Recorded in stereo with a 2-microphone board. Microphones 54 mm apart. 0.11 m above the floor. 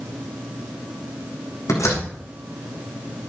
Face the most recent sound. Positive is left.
turn(degrees=75)  # may be behind; listen again after turning